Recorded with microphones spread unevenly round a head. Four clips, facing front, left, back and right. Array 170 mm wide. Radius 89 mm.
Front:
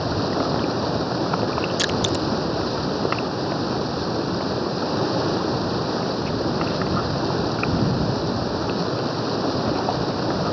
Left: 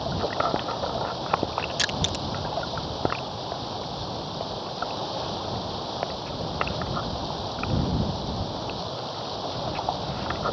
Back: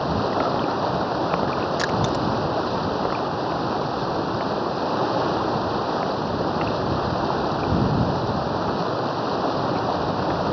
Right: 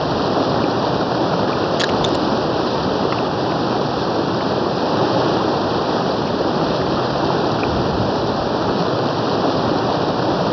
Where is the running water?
80° right.